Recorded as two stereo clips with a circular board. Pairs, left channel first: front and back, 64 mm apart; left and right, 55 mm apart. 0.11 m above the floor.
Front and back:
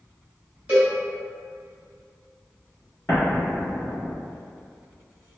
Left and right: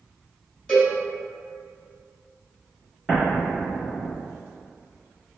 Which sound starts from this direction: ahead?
An explosion, at 3.1 s.